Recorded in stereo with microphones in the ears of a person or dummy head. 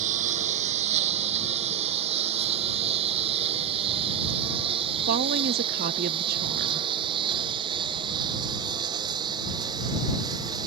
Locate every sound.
0.0 s a lawn mower: 35° right (ahead or behind); by 10.7 s 20° right (ahead or behind)
5.1 s a woman speaking: 45° right (ahead or behind)